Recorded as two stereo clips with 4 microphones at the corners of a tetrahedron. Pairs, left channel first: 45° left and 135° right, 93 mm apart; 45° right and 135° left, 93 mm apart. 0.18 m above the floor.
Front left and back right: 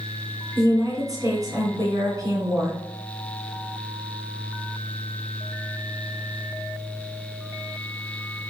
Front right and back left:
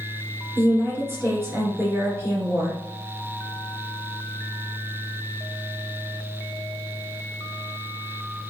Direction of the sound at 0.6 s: 175° right.